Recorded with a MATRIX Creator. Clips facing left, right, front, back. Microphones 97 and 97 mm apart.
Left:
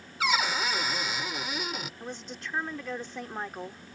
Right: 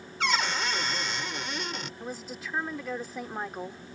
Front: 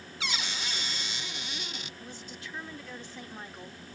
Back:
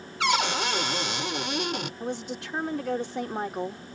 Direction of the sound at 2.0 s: 175° right.